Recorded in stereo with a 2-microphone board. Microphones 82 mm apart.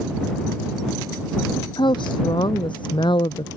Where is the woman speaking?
75° left (ahead or behind).